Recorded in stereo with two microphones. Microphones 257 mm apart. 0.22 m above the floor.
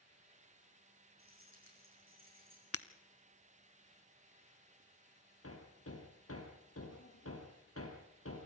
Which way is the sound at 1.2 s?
55° right (ahead or behind).